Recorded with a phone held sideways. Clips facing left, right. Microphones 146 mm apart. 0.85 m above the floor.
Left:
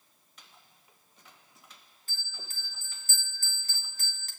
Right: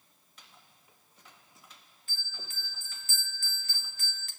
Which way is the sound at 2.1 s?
40° left (ahead or behind).